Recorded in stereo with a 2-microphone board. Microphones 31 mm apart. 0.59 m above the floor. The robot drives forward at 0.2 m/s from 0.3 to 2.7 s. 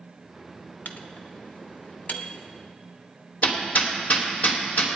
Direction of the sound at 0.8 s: 70° left (ahead or behind).